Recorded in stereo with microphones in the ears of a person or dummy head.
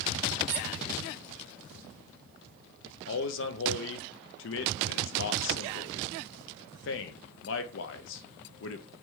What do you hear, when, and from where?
0.5 s a squeak: 55° right (ahead or behind), 1.6 m
3.1 s a man speaking: 70° left (ahead or behind), 0.6 m